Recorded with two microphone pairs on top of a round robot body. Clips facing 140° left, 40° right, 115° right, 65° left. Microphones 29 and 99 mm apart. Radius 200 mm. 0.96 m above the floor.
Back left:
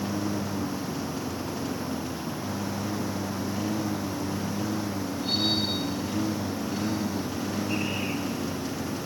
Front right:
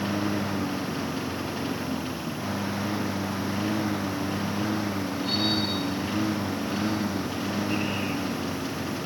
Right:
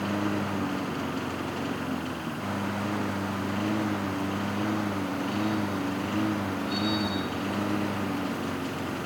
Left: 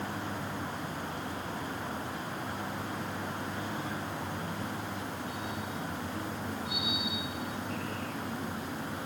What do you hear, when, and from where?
0.0 s a lawn mower: 100° right; by 9.1 s 105° right